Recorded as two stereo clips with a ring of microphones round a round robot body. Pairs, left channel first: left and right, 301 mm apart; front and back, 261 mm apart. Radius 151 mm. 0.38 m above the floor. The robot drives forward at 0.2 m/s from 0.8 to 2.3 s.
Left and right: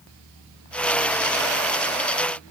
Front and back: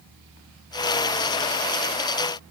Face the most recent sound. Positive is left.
No sound to turn to.